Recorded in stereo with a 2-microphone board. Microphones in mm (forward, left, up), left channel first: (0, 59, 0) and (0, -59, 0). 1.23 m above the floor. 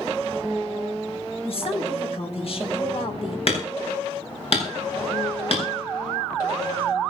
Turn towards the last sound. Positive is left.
turn(degrees=55)  # may be behind; listen again after turning